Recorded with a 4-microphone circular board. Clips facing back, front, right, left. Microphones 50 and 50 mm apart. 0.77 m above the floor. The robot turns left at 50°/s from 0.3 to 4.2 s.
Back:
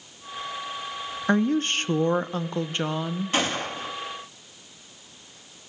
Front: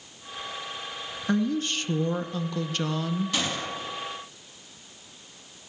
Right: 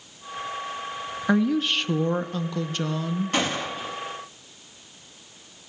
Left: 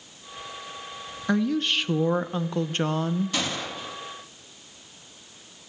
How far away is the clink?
I don't hear a clink.